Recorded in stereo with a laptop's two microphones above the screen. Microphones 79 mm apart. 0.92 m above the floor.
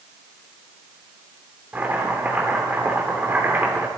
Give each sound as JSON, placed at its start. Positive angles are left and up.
{"t": 1.7, "sound": "chopping", "side_deg": -25, "distance_m": 2.5}